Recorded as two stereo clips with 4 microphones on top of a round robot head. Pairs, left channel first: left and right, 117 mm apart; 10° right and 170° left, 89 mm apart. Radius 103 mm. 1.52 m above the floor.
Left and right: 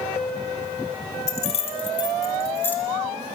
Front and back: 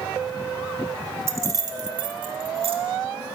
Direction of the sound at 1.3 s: 115° left.